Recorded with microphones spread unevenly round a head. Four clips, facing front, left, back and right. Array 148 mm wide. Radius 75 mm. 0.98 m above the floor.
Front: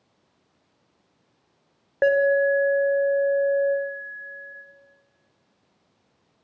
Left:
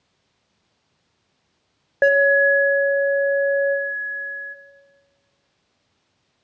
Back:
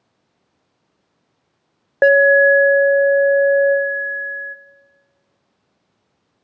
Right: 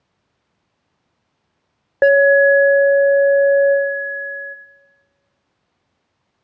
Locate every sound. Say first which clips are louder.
2.0 s an alarm: right 5 dB, back 7 dB; 170° right, 0.8 m